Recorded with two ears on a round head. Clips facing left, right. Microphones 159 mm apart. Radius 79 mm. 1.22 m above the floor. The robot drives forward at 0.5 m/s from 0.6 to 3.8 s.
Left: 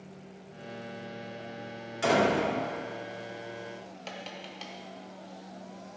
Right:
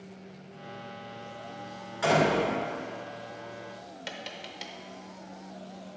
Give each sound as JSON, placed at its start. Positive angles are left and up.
{"t": 2.0, "sound": "a door slam", "side_deg": 35, "distance_m": 2.5}
{"t": 4.1, "sound": "tapping", "side_deg": -10, "distance_m": 0.7}